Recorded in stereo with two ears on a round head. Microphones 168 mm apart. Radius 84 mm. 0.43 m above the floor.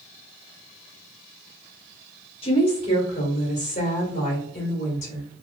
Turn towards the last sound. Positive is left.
turn(degrees=40)  # may be behind; listen again after turning